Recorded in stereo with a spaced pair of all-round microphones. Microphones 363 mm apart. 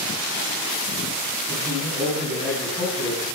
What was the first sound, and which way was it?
A man speaking, centre (ahead or behind).